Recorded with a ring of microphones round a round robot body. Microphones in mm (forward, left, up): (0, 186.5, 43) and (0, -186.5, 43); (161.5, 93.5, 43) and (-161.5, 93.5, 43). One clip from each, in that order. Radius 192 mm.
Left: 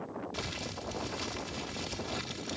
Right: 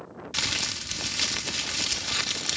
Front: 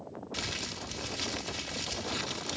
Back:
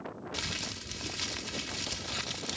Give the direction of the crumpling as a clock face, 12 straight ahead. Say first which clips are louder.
Right 14 dB, even; 3 o'clock.